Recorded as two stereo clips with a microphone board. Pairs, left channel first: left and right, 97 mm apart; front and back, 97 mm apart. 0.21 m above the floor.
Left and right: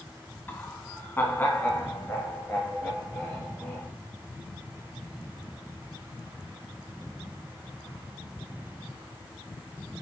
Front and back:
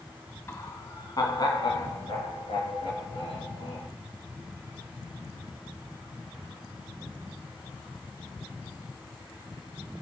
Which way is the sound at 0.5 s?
40° left.